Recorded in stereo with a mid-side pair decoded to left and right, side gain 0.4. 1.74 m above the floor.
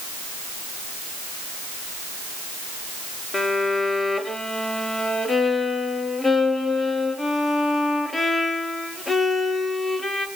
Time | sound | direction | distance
3.3 | a violin | 20° left | 2.5 m